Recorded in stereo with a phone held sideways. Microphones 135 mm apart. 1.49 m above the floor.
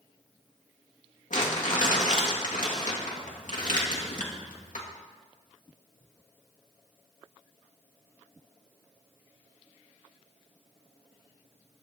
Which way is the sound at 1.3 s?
80° left.